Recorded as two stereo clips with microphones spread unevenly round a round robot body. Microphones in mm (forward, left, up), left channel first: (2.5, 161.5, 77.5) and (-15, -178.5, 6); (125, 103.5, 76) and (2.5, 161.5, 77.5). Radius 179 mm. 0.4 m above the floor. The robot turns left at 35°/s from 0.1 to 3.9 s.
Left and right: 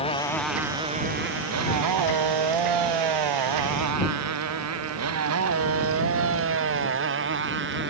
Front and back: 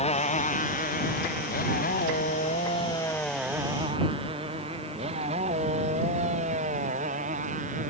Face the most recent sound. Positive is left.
turn(degrees=-150)